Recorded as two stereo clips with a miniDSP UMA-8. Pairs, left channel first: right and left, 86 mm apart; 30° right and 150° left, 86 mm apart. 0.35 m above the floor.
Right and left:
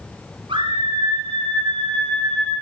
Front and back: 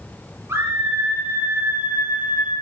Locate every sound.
0.5 s a scream: 90° left, 6.5 m; by 2.5 s 80° left, 9.5 m